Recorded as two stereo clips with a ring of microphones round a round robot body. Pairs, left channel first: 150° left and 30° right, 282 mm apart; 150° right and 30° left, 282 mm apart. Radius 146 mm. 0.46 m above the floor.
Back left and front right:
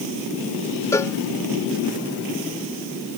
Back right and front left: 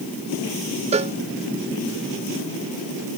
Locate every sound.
0.9 s a cowbell: 75° left